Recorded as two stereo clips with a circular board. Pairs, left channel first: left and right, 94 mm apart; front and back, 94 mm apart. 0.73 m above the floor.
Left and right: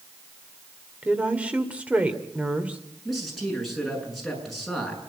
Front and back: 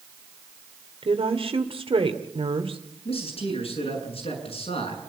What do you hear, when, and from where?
1.0 s a woman speaking: 165° right, 2 m
3.0 s a man speaking: straight ahead, 7.5 m